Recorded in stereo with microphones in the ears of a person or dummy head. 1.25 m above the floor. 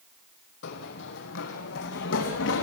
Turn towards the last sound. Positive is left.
turn(degrees=70)  # may be behind; listen again after turning